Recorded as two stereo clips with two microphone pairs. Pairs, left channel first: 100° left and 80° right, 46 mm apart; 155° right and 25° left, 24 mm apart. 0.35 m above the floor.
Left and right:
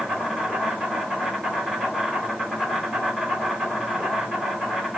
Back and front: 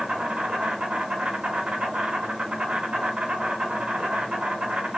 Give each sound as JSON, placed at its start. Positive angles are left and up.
{"t": 0.0, "sound": "an insect", "azimuth_deg": 5, "distance_m": 3.5}